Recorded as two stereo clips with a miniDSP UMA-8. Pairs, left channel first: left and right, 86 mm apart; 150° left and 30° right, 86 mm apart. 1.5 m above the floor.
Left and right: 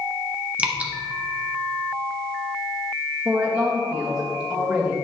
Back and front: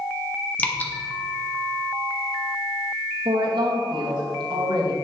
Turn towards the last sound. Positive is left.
turn(degrees=-5)